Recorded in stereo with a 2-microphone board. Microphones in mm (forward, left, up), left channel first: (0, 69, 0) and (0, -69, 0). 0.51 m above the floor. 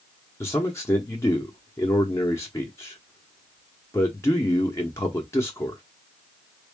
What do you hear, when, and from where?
0.4 s a man speaking: 20° left (ahead or behind), 0.8 m